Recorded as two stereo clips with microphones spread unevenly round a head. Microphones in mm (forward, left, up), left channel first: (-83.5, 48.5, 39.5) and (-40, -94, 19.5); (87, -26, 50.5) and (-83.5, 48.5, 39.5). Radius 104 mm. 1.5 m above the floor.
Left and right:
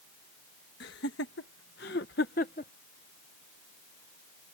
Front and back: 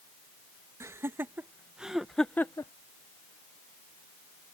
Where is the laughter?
80° left; by 2.7 s 50° left.